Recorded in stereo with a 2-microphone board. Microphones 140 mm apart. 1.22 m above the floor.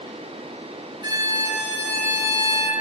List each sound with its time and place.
1.0 s a violin: 30° right (ahead or behind), 1.2 m